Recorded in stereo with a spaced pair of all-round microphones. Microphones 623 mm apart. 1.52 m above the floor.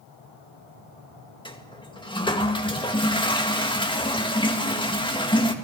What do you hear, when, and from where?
1.4 s a toilet flushing: 10° left (ahead or behind), 2.0 m